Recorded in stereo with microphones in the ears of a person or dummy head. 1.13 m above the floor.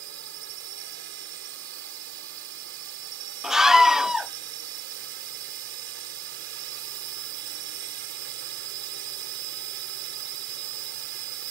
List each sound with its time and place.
0.0 s a drone: 60° right (ahead or behind)
3.4 s a scream: 5° right (ahead or behind)